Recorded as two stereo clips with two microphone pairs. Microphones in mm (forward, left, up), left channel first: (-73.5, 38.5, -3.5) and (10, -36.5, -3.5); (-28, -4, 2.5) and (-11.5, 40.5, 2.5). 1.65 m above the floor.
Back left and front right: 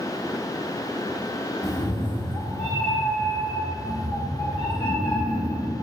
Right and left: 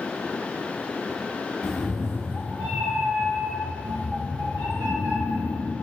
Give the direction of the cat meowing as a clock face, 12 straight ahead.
6 o'clock.